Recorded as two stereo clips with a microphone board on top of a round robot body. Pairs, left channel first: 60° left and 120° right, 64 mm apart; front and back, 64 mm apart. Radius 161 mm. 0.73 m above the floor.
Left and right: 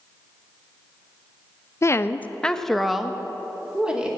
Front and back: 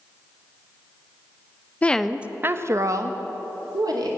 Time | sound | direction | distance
1.8 | a woman speaking | 60° left | 0.8 m